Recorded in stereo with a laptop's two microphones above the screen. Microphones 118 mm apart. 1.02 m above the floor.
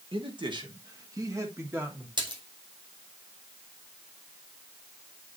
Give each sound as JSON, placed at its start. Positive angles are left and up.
{"t": 0.1, "sound": "a man speaking", "side_deg": -50, "distance_m": 1.5}
{"t": 2.2, "sound": "a splash", "side_deg": -40, "distance_m": 1.9}